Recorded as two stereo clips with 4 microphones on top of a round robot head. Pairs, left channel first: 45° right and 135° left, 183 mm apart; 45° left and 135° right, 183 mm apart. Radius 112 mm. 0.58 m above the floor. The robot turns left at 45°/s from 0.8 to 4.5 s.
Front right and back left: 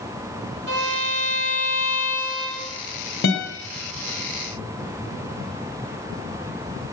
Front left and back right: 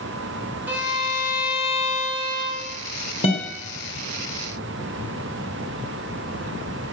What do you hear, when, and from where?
0.7 s a violin: 145° left, 3.5 m; by 2.6 s 60° left, 3.5 m
3.2 s a guitar: 15° right, 3 m; by 3.5 s 25° right, 3 m